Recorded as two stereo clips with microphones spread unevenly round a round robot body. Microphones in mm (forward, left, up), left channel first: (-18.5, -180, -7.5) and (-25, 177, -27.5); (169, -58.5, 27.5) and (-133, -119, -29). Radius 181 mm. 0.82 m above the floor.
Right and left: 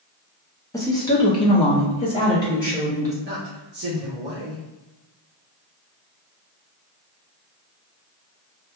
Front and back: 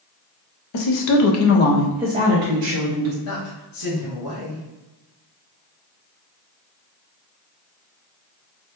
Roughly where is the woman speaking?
Ahead.